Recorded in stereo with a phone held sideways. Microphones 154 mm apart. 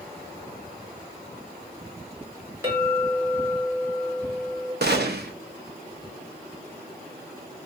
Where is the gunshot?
80° right, 0.6 m.